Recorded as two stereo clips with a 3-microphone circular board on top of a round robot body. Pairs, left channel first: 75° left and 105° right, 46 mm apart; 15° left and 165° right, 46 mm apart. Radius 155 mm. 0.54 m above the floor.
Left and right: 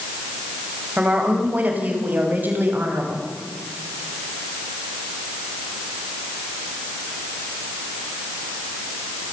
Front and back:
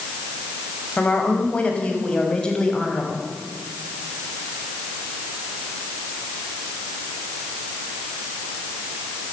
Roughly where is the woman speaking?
Ahead right.